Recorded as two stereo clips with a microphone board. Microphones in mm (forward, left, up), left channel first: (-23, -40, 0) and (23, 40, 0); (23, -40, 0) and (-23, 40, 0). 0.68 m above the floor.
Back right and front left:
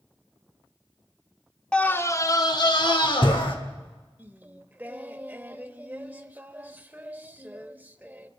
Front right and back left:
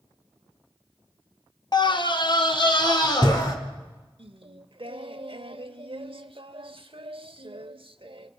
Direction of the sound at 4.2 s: 130° left.